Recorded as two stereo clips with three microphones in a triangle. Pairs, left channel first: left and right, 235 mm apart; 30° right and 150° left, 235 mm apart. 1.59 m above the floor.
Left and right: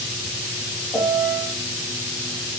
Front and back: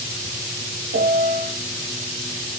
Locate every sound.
0.9 s a piano: 175° right, 0.5 m